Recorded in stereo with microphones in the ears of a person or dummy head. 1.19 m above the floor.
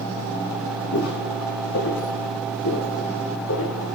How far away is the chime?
No chime in this recording.